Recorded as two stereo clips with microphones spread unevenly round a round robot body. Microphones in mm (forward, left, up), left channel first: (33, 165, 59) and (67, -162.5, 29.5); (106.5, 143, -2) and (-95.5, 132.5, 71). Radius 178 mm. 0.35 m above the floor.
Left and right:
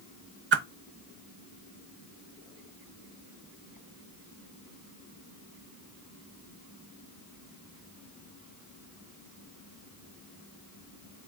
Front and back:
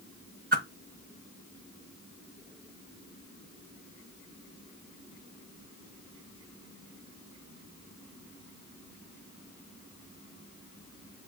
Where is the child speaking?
No child speaking in this recording.